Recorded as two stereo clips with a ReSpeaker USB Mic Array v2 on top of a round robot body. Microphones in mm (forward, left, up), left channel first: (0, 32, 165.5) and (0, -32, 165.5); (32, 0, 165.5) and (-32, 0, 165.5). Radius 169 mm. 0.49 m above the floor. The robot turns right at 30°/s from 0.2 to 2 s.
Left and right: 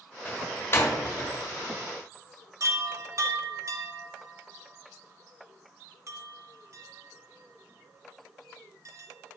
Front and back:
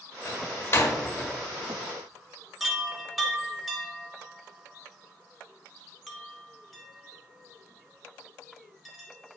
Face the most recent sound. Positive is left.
turn(degrees=-90)